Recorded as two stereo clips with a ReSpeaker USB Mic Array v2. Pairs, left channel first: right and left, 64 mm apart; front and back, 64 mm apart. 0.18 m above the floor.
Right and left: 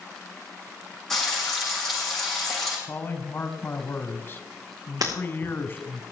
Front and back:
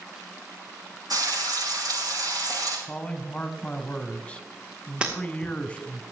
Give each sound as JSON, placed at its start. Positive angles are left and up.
{"t": 1.1, "sound": "frying", "azimuth_deg": -175, "distance_m": 8.5}
{"t": 2.9, "sound": "a man speaking", "azimuth_deg": -60, "distance_m": 1.3}
{"t": 5.0, "sound": "breaking glass", "azimuth_deg": 105, "distance_m": 5.5}